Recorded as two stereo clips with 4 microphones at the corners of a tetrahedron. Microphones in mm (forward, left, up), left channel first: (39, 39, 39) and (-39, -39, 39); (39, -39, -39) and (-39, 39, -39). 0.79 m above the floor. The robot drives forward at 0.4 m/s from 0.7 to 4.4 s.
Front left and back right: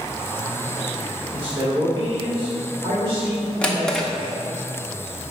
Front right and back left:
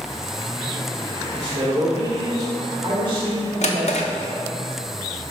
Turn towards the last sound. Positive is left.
turn(degrees=-55)